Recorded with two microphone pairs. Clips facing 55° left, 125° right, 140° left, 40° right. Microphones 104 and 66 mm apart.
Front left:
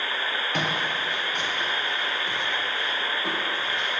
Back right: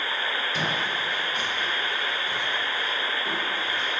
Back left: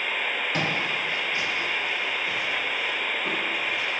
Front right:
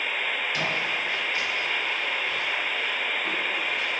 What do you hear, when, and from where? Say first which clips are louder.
0.5 s footsteps: front left 1 dB, back left 1 dB; 85° left, 3.5 m; by 4.0 s 50° left, 4.5 m